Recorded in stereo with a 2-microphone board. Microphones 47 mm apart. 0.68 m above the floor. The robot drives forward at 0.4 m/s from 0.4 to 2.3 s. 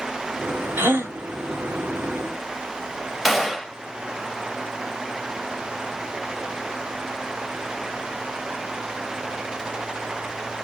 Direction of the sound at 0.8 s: 60° right (ahead or behind).